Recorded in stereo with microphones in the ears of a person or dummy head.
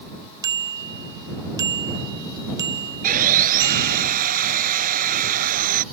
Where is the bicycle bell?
20° right (ahead or behind).